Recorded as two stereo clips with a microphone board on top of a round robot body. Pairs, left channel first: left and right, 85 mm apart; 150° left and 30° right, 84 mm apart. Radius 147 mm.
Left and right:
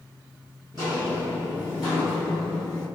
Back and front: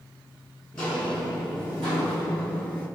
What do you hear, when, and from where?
0.7 s footsteps: 135° right, 0.8 m; by 2.9 s 5° left, 1.8 m